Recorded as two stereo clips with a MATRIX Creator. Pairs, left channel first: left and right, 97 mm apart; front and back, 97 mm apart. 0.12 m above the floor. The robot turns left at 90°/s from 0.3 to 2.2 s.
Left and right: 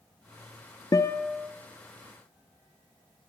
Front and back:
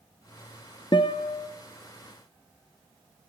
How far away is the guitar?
About 0.5 m.